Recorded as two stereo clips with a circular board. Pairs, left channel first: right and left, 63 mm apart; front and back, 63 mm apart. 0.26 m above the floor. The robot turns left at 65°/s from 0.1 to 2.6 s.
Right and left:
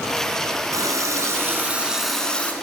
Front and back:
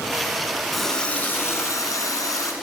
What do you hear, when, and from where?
0.7 s a running tap: 90° left, 1.6 m; by 2.5 s 25° right, 1.6 m